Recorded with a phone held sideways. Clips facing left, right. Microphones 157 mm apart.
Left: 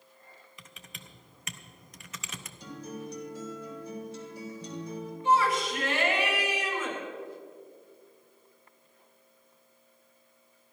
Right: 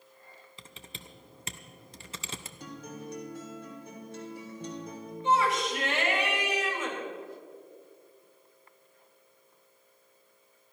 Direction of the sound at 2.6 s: 55° right (ahead or behind).